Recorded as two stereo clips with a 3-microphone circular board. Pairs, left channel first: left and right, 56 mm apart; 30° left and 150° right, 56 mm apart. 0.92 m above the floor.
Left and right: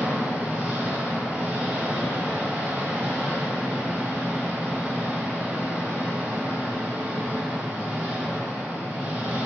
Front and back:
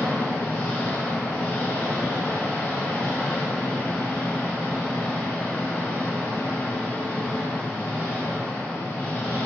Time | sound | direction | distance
0.0 | an engine running | 35° right | 1.0 m